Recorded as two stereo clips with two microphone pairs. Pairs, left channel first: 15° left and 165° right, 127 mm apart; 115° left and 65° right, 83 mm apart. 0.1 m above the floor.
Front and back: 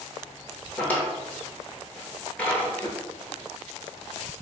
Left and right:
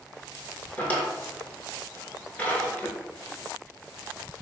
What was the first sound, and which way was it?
A drawer, 75° left.